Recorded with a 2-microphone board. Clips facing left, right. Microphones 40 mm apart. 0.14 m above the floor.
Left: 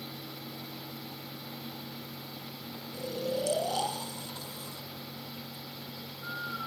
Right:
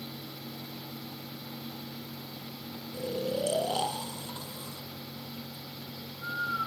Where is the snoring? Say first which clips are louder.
Right 1 dB; 35° right (ahead or behind), 1.2 m.